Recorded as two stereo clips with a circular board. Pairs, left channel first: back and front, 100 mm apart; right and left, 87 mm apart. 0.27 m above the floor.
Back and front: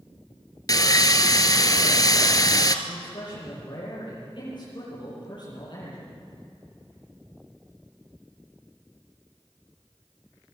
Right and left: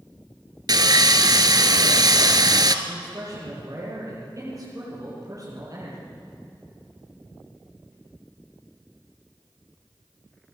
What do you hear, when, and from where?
0.7 s sawing: 130° left, 1.4 m
2.9 s a man speaking: 140° left, 9 m